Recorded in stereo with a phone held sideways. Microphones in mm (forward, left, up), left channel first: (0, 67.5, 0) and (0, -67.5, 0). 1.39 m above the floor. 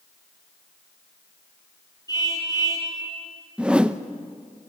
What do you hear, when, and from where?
2.1 s a car horn: 25° left (ahead or behind), 9.5 m
3.6 s a whoosh: 5° right (ahead or behind), 0.7 m